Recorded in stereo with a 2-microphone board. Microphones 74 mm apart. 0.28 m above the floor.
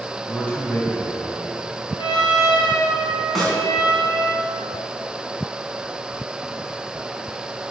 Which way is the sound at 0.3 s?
15° left (ahead or behind).